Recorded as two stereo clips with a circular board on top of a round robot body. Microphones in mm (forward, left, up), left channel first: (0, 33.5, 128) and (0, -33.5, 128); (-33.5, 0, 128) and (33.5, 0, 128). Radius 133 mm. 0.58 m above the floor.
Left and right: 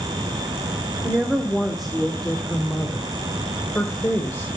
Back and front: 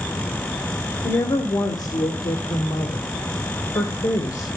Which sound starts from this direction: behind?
A woman speaking, at 1.0 s.